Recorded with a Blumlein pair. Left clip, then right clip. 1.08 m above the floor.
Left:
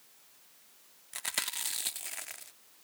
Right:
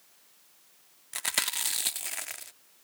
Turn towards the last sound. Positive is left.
turn(degrees=-15)